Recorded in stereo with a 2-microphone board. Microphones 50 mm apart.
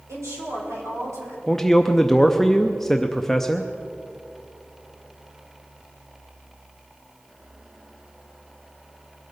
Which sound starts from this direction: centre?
A man speaking, at 1.5 s.